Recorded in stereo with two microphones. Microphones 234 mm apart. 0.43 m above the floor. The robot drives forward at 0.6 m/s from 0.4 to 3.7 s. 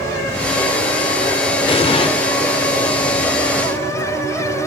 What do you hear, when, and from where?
1.7 s an explosion: 25° left (ahead or behind), 1.7 m